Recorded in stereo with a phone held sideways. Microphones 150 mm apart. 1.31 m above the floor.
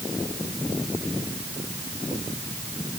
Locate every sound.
Only background noise.